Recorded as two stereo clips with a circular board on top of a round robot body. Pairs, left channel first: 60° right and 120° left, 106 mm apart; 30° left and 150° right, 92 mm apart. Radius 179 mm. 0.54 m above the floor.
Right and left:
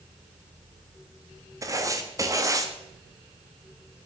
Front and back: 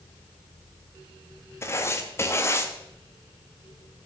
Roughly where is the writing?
Left.